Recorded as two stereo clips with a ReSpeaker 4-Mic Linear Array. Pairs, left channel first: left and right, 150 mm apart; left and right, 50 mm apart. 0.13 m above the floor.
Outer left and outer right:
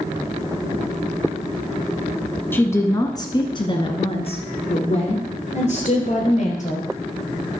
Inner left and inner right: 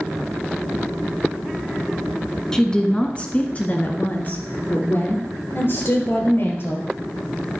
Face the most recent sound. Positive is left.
turn(degrees=60)  # may be behind; listen again after turning